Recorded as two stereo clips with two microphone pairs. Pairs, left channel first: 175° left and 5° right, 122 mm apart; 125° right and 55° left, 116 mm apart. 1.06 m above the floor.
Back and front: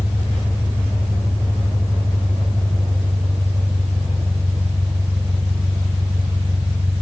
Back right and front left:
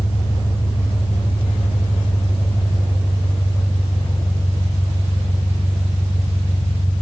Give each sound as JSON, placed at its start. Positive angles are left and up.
{"t": 0.0, "sound": "an engine running", "azimuth_deg": -90, "distance_m": 4.0}